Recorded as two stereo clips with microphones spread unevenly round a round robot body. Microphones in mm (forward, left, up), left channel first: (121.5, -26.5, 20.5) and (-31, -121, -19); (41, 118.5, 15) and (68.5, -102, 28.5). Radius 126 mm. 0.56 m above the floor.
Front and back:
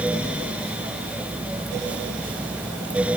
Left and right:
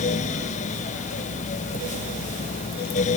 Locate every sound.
Only background noise.